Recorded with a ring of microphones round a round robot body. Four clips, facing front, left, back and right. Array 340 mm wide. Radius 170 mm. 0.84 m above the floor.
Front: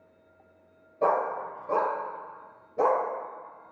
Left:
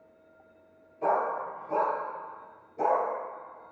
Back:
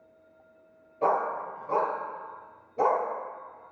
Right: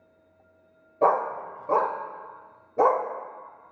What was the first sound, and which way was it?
A dog barking, 80° right.